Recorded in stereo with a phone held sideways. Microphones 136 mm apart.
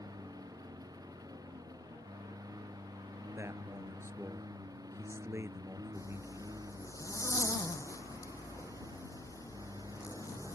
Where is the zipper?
25° left (ahead or behind).